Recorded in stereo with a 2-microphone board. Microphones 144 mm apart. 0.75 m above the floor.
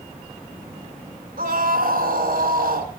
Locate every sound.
1.4 s a scream: 75° right (ahead or behind), 2 m